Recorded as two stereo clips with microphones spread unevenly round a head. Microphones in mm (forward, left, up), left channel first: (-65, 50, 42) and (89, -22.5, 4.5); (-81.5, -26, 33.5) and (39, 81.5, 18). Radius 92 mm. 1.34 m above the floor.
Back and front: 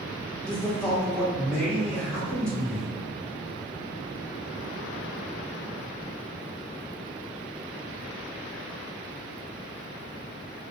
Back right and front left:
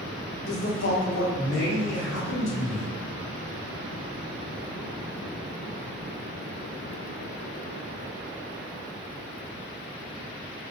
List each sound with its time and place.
0.4 s a man speaking: 115° right, 1.4 m